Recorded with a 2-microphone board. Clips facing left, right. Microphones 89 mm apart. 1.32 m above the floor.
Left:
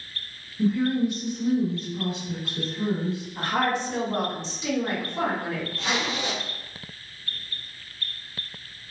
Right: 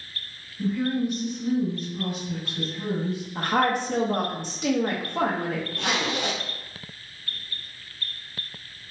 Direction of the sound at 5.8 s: 60° right (ahead or behind).